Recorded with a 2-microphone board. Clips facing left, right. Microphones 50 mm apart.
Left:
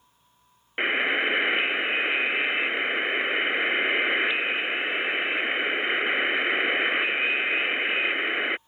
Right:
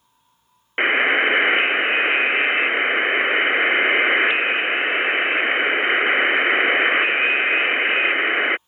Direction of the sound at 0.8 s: 30° right (ahead or behind).